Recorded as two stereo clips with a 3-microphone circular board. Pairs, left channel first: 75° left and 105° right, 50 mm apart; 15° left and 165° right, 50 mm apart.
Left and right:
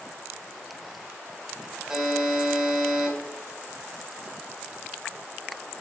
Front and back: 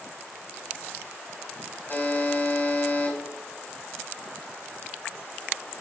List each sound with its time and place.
1.9 s a buzzer: 20° right, 3 m